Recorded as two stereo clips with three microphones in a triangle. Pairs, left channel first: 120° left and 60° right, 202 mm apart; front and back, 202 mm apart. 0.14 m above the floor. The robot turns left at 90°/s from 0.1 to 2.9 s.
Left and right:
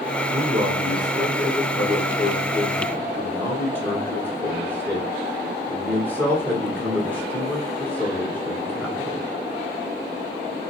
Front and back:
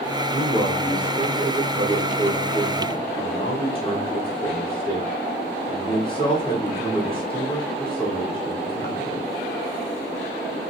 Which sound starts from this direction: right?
A man speaking, at 0.3 s.